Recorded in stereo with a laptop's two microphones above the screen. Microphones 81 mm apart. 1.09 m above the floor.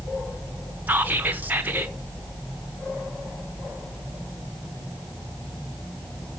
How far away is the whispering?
About 0.8 m.